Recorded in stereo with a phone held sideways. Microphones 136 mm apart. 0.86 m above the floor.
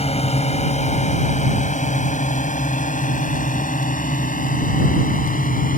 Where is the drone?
50° left (ahead or behind); by 5.8 s 80° left.